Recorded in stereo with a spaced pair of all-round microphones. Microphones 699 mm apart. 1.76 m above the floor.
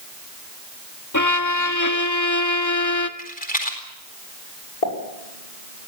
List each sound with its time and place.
1.1 s a violin: 25° left (ahead or behind), 1.6 m
3.2 s a rattle: 10° left (ahead or behind), 4 m
4.8 s a pop: 60° left (ahead or behind), 6.5 m